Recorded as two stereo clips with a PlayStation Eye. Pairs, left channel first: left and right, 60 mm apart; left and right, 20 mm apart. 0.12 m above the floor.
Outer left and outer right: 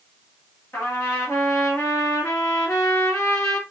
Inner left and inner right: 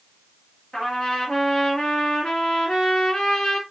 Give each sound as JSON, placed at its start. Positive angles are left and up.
{"t": 0.7, "sound": "a trumpet", "side_deg": 45, "distance_m": 1.7}